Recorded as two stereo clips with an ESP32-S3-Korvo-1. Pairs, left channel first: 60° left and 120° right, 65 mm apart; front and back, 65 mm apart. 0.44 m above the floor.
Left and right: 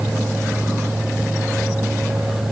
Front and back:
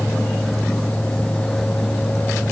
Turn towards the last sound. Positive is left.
No sound to turn to.